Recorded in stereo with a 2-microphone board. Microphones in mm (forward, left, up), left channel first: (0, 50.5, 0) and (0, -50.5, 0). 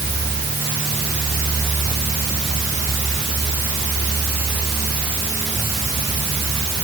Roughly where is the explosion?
I don't hear an explosion.